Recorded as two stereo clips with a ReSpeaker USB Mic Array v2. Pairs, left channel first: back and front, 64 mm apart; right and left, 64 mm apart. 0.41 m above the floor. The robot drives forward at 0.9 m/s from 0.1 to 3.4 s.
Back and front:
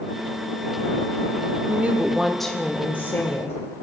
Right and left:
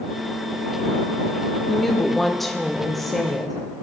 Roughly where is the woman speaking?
Ahead.